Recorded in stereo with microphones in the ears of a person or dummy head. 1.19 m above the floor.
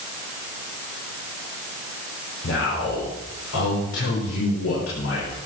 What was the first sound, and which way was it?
A man speaking, 75° left (ahead or behind).